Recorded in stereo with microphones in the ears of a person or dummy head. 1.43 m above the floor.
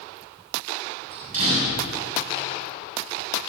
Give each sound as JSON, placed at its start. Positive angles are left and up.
{"t": 1.1, "sound": "a door slam", "side_deg": -45, "distance_m": 8.5}